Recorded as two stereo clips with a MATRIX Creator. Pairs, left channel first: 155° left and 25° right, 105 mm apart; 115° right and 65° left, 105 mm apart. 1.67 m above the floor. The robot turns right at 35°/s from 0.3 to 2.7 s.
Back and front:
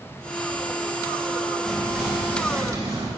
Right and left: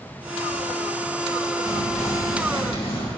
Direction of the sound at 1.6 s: 120° right.